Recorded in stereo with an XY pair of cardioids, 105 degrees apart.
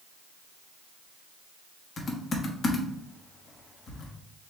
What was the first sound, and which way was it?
Typing on a keyboard, 45° left.